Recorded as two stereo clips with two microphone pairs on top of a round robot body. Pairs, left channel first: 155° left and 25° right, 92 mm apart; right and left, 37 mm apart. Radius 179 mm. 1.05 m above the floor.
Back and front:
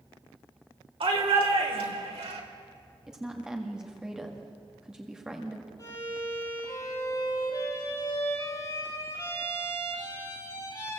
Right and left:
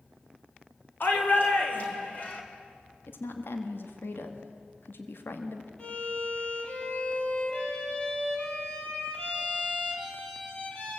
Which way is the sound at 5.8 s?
150° right.